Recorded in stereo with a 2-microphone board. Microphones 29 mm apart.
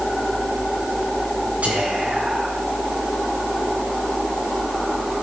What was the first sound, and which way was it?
Whispering, 55° right (ahead or behind).